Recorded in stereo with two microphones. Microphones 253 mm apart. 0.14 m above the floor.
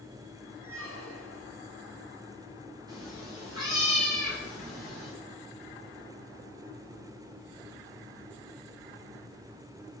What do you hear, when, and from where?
0.6 s a squeak: 70° right (ahead or behind), 1.4 m
2.9 s a cat meowing: 15° right (ahead or behind), 5 m